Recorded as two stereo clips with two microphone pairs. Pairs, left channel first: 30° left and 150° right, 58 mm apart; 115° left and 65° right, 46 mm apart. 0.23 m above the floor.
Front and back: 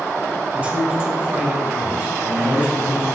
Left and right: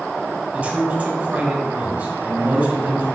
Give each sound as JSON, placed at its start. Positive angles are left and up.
{"t": 0.5, "sound": "a man speaking", "azimuth_deg": -100, "distance_m": 1.9}